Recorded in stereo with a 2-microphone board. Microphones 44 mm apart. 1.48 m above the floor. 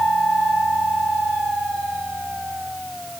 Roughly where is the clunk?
No clunk in this recording.